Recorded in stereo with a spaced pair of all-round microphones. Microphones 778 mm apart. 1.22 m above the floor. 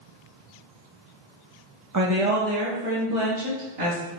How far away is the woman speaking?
About 0.5 m.